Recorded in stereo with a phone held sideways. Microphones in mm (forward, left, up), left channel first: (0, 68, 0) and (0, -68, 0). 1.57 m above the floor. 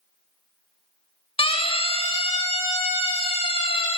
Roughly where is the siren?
Left.